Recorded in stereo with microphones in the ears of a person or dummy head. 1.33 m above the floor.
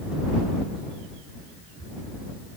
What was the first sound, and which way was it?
Only background noise.